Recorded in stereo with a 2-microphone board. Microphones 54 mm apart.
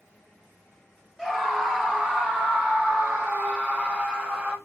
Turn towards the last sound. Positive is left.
turn(degrees=-20)  # may be behind; listen again after turning